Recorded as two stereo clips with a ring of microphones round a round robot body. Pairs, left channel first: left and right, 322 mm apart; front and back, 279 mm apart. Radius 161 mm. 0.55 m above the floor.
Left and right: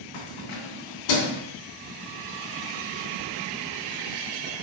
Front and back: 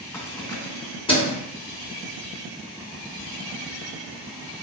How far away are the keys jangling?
About 3 m.